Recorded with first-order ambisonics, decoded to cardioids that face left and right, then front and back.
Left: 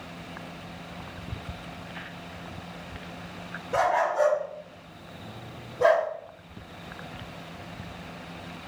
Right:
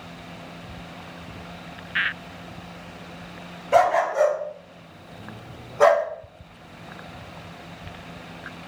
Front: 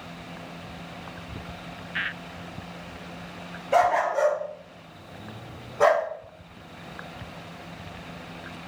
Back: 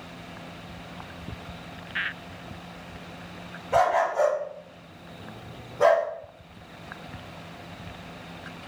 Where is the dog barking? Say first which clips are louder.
Right 5 dB, front 1 dB; 65° right, 2.5 m; by 6.1 s 70° right, 1.0 m.